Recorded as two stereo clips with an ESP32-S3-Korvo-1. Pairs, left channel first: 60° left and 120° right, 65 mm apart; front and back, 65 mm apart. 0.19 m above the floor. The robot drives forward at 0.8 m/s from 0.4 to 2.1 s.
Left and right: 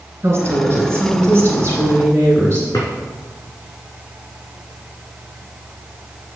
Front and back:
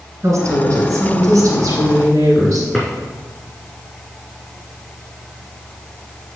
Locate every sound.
0.2 s a woman speaking: 155° right, 2.5 m; by 2.6 s 165° right, 3.5 m
2.7 s a drawer: 95° left, 3 m